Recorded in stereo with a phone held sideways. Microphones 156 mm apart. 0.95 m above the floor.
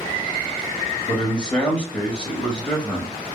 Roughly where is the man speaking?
Centre.